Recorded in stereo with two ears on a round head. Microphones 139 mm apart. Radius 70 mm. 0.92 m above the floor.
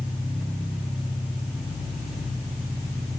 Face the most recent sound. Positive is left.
turn(degrees=-5)  # may be behind; listen again after turning